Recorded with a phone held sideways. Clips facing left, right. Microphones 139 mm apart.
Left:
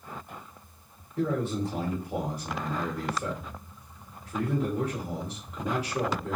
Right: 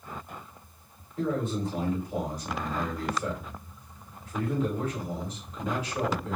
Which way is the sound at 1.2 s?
75° left (ahead or behind).